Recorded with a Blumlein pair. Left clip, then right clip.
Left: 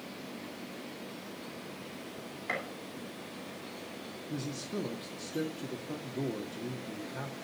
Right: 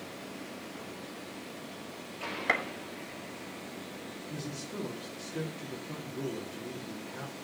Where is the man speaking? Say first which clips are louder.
Left 4 dB; 10° left, 1.9 m.